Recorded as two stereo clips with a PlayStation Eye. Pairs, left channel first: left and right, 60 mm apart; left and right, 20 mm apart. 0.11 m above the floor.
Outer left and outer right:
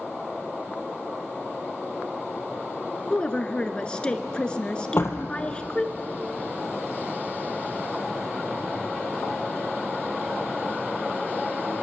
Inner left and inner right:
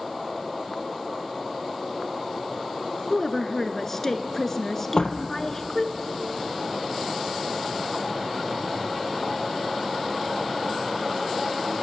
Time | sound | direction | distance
3.1 | a woman speaking | 15° left (ahead or behind) | 1.3 m
5.0 | a door slam | 40° left (ahead or behind) | 2.0 m